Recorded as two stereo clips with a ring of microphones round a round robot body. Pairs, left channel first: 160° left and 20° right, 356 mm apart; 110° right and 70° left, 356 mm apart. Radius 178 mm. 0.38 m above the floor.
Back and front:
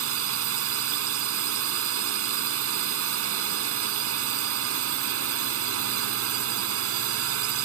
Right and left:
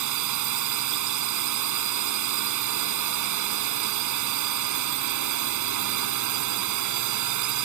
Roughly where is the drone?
Ahead left.